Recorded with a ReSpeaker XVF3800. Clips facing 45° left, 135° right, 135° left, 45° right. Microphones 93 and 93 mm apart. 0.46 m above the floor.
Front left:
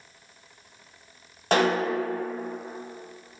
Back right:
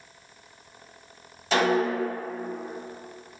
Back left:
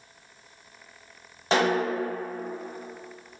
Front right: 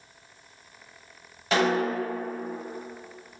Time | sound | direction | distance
1.5 | a snare drum | 80° left | 0.9 m